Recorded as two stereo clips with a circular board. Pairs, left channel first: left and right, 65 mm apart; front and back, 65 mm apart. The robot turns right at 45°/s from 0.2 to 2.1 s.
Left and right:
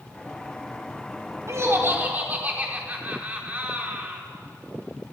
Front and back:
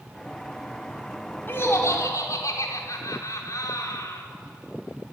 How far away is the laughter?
About 4.5 m.